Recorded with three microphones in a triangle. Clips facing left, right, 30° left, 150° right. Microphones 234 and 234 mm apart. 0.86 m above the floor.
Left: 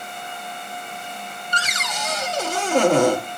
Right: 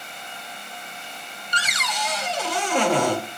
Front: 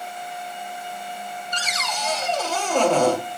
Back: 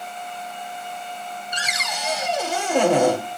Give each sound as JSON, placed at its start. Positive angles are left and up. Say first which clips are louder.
{"t": 1.5, "sound": "a cupboard door", "louder": "even, front 2 dB", "azimuth_deg": 135, "distance_m": 1.1}